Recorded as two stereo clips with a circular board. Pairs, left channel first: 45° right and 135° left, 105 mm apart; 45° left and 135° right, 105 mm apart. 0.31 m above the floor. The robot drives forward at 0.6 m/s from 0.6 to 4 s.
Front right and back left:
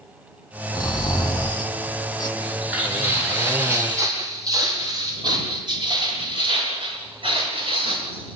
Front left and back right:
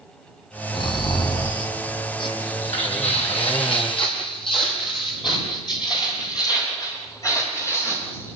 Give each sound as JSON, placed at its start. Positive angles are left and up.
{"t": 0.7, "sound": "snoring", "azimuth_deg": 10, "distance_m": 4.5}
{"t": 2.4, "sound": "footsteps", "azimuth_deg": 55, "distance_m": 9.0}